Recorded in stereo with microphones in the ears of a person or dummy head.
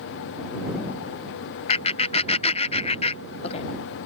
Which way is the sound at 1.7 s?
35° left (ahead or behind).